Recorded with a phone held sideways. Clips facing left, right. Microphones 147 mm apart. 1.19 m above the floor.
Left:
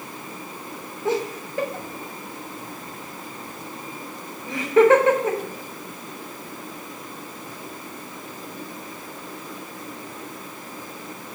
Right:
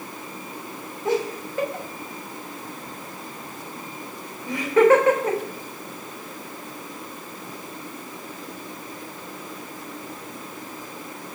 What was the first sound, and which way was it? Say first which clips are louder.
Laughter: right 1 dB; 25° left (ahead or behind).